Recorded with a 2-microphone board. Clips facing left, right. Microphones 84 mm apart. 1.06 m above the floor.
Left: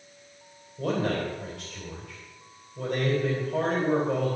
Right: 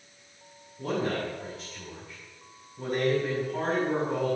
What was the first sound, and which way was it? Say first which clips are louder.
A man speaking: left 2 dB; 75° left (ahead or behind).